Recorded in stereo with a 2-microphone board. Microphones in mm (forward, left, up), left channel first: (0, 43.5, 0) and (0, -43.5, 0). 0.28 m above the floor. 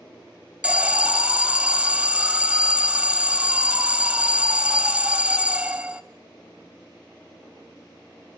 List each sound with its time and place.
0.6 s an alarm: 15° right (ahead or behind), 0.8 m